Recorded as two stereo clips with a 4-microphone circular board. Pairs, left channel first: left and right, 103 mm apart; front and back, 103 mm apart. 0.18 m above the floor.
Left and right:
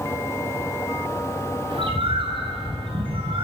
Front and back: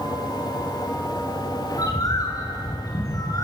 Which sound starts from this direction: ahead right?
A bird, at 1.7 s.